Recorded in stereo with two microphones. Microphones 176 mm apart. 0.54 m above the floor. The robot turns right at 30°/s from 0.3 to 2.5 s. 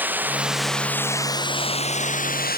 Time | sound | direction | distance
0.0 | running water | 10° right | ?